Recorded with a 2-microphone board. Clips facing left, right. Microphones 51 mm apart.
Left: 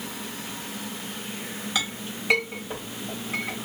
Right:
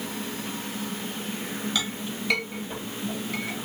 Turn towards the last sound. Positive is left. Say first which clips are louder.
# even
turn(degrees=25)  # may be behind; listen again after turning